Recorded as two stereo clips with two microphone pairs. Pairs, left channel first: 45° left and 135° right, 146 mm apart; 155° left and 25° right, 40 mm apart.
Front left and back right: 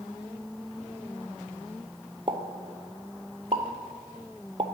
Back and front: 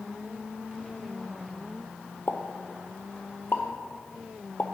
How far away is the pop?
About 0.6 m.